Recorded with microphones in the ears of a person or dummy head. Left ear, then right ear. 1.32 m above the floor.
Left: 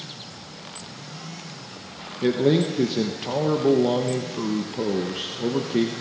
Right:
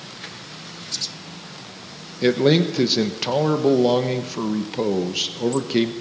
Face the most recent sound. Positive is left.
turn(degrees=-35)  # may be behind; listen again after turning